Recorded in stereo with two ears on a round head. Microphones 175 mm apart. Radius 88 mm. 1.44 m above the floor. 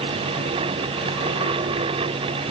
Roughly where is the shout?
No shout in this recording.